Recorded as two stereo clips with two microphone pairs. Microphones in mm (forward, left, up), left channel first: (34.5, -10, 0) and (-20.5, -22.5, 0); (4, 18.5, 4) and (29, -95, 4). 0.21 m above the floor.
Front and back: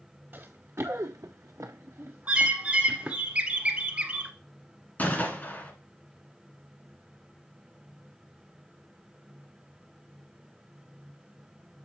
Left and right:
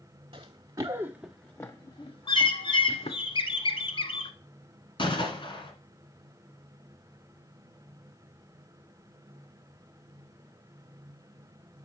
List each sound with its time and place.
0.3 s running footsteps: 115° right, 1.4 m; by 3.2 s 125° left, 2 m
2.3 s a bird: 130° left, 0.8 m
5.0 s a gunshot: 65° left, 1.6 m